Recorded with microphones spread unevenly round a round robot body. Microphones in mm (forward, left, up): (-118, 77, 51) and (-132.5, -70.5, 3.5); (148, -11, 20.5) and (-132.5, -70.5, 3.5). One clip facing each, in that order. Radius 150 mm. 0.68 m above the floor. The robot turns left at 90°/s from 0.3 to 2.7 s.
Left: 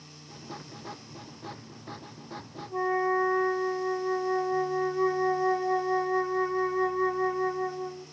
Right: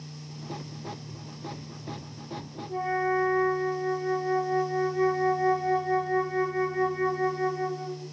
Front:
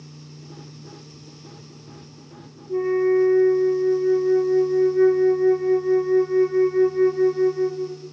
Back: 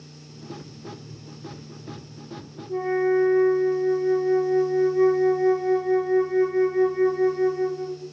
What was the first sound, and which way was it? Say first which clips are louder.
A flute: even, front 3 dB; 55° right.